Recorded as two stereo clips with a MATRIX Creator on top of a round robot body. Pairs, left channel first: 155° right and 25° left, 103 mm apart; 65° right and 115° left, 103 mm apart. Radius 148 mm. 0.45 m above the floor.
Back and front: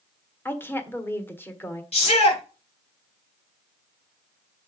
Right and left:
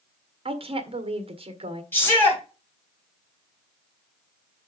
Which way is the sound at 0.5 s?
135° left.